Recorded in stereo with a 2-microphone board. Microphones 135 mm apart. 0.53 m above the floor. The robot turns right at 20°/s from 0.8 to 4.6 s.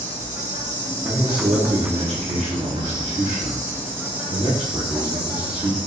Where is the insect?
85° right, 1.3 m; by 5.9 s 5° right, 1.3 m.